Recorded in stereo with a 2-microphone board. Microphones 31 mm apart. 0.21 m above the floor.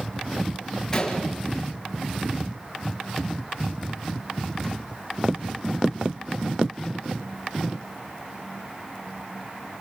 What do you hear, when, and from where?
0.9 s a gunshot: 15° left (ahead or behind), 4 m